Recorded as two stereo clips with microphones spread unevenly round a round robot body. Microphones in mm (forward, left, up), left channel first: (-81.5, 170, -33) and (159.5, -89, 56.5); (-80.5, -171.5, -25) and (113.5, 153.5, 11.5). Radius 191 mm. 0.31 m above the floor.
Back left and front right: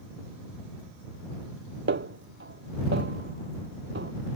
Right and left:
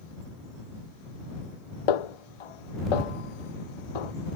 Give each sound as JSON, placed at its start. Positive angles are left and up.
{"t": 1.9, "sound": "a snare drum", "azimuth_deg": -110}